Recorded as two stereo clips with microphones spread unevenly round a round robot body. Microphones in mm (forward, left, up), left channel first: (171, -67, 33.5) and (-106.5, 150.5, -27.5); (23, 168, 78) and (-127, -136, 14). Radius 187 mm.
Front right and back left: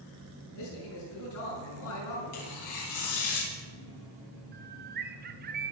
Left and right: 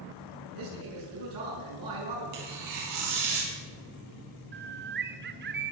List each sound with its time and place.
0.6 s a man speaking: 85° right, 6.5 m
2.3 s tearing paper: 85° right, 4.5 m
4.5 s a bird: 165° right, 0.9 m